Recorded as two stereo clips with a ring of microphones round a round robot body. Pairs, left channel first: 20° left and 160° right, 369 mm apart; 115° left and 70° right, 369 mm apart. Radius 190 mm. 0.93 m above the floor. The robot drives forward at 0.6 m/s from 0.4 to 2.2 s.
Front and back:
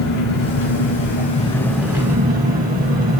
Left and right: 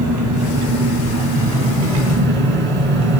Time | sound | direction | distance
0.0 | an engine running | 20° right | 1.2 m